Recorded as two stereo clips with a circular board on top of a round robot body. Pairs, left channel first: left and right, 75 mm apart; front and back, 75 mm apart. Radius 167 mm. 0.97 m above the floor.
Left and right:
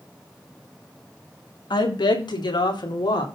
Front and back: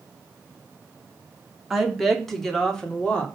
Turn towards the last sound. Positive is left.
turn(degrees=75)